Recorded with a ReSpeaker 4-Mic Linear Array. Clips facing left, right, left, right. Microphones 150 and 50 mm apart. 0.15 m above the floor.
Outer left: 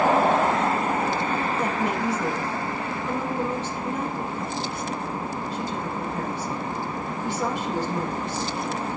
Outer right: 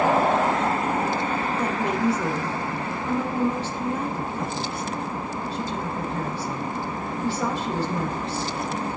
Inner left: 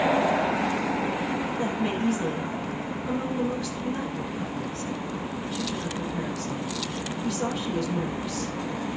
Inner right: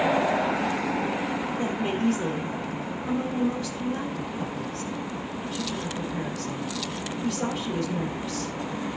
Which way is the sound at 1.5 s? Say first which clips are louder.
Even, even; 35° right (ahead or behind).